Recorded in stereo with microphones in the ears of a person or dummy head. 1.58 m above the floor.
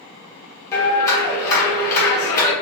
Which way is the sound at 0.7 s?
15° left (ahead or behind).